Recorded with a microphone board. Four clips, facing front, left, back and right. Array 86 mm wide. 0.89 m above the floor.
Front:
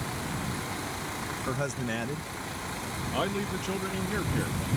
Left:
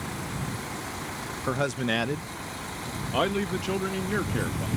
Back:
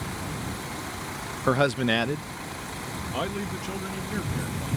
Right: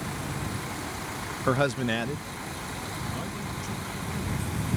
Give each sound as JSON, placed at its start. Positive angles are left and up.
{"t": 1.5, "sound": "a man speaking", "azimuth_deg": -155}